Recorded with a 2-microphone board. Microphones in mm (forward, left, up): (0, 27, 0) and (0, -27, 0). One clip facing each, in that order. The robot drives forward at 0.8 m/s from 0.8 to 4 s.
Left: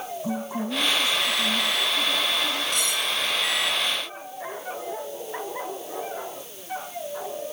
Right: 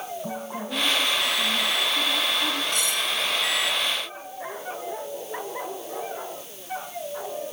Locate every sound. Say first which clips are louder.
0.2 s a woman speaking: left 3 dB; 60° right (ahead or behind), 7.5 m; by 2.6 s 70° right (ahead or behind), 7 m
2.7 s cutlery clinking: even; 30° right (ahead or behind), 7.5 m; by 3.0 s 25° right (ahead or behind), 7.5 m